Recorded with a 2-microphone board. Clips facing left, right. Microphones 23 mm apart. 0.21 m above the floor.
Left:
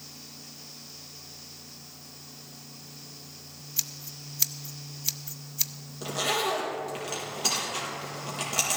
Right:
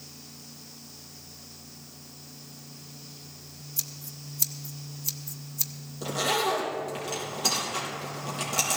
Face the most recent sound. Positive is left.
turn(degrees=10)  # may be behind; listen again after turning